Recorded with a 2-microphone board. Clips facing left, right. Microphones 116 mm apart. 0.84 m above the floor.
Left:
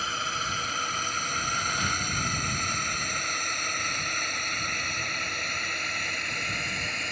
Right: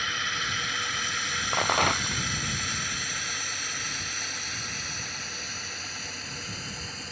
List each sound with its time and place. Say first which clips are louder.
0.0 s a drone: left 2 dB; 35° left (ahead or behind); by 7.1 s 70° left (ahead or behind)
1.5 s a rattle: right 10 dB; 65° right (ahead or behind)